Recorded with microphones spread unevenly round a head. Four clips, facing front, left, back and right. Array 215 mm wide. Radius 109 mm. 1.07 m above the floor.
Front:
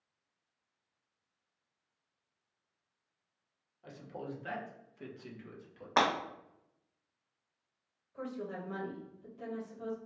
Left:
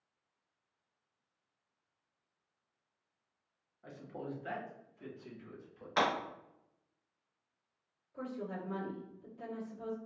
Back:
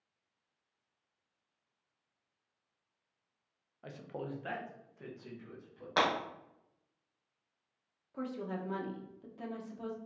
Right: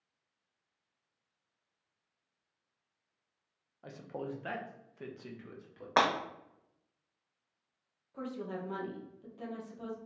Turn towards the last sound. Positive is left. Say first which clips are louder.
# right 2 dB, back 1 dB
turn(degrees=-155)